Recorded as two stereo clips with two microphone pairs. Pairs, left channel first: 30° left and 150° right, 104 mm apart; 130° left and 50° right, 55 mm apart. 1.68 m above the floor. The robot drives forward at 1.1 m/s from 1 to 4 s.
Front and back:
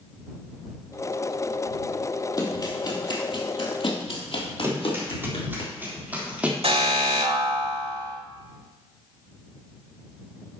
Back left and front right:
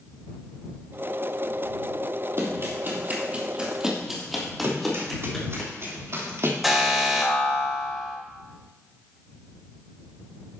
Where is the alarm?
135° right, 4 m.